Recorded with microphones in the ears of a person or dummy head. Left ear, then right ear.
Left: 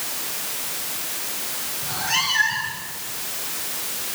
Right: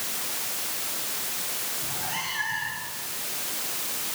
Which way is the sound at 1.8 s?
50° left (ahead or behind).